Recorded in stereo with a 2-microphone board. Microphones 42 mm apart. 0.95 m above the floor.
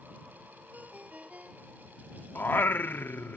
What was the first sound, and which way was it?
A ringtone, 35° right (ahead or behind).